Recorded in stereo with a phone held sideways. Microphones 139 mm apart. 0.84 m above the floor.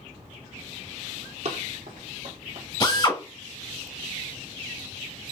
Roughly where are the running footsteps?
Right.